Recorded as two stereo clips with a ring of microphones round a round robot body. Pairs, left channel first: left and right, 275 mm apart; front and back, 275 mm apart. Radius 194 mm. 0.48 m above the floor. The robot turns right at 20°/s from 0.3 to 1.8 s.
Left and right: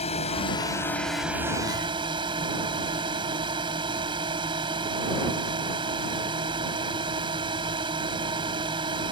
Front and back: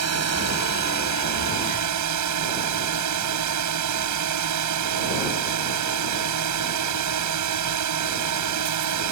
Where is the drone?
165° left; by 9.1 s 165° right.